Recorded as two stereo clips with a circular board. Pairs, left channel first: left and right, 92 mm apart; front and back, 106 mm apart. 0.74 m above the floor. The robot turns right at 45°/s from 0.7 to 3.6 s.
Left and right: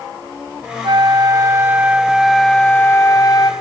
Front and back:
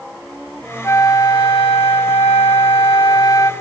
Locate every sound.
0.8 s a flute: 65° right, 2 m; by 3.5 s 55° left, 2 m